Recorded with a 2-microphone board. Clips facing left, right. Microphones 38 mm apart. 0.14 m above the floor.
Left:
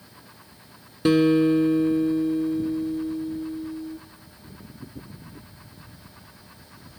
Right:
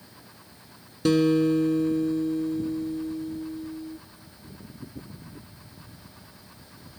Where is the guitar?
25° left (ahead or behind), 0.7 m.